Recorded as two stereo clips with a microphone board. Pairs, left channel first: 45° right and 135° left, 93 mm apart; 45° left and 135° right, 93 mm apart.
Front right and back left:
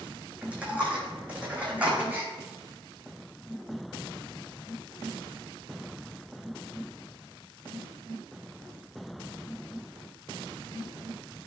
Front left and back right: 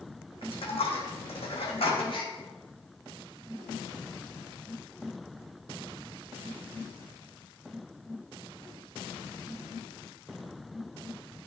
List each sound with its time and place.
0.4 s a dropped coin: 60° left, 1.9 m
2.1 s a gasp: 65° left, 3 m